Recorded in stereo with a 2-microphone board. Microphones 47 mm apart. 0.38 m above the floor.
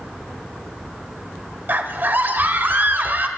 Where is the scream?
45° right (ahead or behind), 1.3 m.